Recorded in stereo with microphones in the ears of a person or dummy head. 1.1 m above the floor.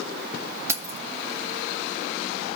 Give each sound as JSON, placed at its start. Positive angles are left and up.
{"t": 0.7, "sound": "keys jangling", "side_deg": -15, "distance_m": 0.9}